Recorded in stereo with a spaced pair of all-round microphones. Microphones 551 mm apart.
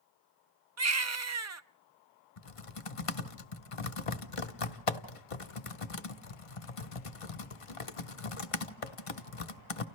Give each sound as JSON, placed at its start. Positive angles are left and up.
{"t": 0.8, "sound": "a baby crying", "side_deg": -30, "distance_m": 0.6}
{"t": 2.4, "sound": "typing on a keyboard", "side_deg": 75, "distance_m": 0.8}